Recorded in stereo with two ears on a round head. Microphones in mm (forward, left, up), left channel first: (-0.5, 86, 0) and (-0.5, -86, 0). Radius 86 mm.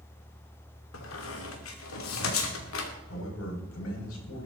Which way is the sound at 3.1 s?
85° left.